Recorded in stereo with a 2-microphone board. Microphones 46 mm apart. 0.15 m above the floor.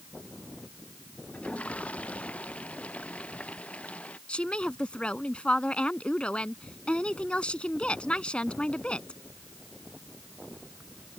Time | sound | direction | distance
1.3 | a toilet flushing | 30° left (ahead or behind) | ?
4.3 | a woman speaking | 25° left (ahead or behind) | ?